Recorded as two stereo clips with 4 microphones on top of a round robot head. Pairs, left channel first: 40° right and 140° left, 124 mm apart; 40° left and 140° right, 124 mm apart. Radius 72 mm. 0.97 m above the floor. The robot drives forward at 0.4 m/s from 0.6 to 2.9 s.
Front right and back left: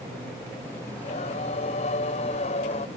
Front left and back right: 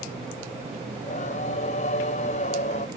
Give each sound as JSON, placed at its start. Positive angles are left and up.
{"t": 0.9, "sound": "singing", "azimuth_deg": 0}